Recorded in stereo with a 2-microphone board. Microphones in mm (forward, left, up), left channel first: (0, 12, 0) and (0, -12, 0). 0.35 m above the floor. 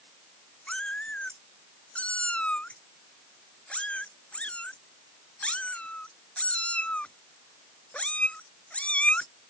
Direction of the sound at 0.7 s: 65° left (ahead or behind).